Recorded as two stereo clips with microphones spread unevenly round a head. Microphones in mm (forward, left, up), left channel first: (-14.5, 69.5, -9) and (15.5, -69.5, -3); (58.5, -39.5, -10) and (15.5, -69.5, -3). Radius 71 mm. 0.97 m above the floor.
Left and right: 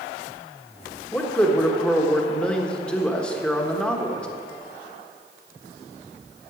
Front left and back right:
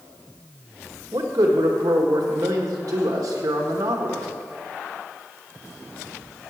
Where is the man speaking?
175° right, 1.3 m.